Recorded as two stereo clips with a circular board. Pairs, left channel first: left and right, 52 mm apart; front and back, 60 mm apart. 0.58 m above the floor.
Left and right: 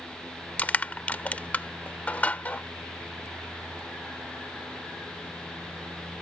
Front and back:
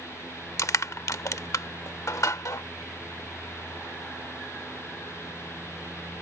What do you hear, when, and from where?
0.6 s crushing: 30° left